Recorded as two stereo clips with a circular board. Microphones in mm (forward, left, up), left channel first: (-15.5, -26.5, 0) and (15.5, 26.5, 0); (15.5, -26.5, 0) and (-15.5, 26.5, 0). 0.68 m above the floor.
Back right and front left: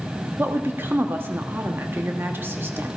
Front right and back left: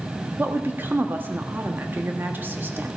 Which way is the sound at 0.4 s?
85° left.